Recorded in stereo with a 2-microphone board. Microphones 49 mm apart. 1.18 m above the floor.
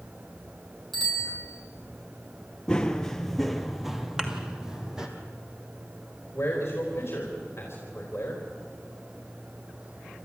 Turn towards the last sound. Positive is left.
turn(degrees=45)  # may be behind; listen again after turning